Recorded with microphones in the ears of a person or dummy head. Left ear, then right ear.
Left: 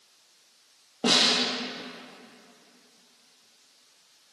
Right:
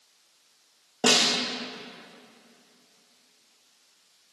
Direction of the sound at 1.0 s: 55° right (ahead or behind).